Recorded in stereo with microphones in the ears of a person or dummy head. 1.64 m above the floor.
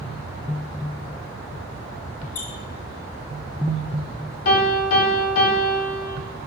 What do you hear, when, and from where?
2.4 s a squeak: 45° left (ahead or behind), 1.2 m
4.5 s a piano: 55° left (ahead or behind), 1.9 m